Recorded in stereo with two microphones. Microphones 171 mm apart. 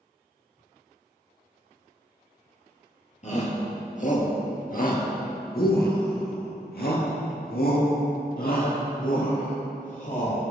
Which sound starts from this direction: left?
A shout, at 3.2 s.